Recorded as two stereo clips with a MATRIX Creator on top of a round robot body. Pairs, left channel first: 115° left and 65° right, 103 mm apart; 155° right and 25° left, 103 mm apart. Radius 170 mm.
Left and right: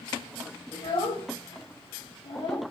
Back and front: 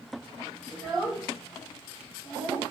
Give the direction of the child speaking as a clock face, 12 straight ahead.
8 o'clock.